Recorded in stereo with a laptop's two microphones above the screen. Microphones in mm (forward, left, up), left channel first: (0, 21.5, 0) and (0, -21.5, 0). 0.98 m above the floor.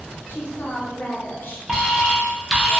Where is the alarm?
15° right (ahead or behind), 0.6 m.